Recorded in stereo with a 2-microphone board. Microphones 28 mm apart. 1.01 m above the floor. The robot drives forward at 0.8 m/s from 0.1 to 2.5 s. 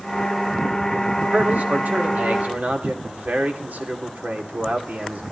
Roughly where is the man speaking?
Right.